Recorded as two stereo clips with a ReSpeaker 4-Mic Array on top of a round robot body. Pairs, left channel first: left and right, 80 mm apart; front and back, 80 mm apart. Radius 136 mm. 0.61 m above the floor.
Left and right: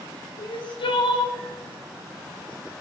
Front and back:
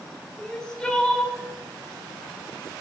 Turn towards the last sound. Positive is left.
turn(degrees=80)